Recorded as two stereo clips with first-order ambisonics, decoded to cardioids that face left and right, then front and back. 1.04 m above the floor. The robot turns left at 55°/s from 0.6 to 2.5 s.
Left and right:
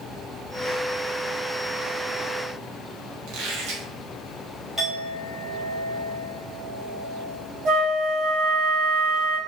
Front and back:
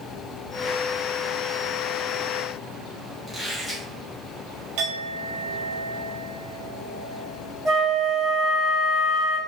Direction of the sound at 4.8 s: 175° right.